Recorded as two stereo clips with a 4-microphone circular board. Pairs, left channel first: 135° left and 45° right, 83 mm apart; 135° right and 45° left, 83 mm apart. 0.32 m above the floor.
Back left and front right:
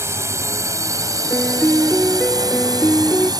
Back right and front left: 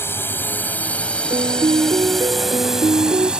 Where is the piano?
60° left.